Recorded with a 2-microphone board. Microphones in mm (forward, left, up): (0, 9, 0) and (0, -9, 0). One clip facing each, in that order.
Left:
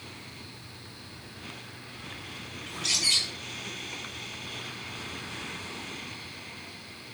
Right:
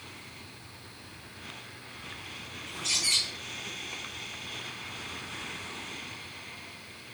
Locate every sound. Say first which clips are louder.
2.7 s a bird: left 2 dB; 65° left (ahead or behind), 1.6 m